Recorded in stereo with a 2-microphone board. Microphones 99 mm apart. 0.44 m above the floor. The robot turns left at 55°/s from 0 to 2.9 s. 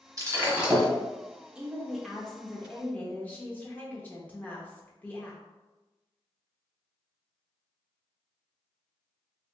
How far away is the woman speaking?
About 0.8 m.